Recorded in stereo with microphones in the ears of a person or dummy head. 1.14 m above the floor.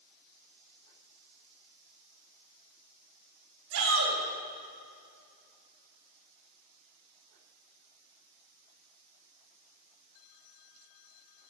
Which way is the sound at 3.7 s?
80° right.